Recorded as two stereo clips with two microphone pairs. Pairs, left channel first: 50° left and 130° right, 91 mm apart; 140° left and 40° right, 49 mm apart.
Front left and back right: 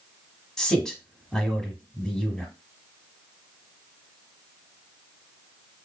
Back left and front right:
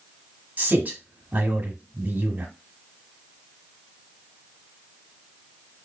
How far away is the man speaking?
About 1.2 m.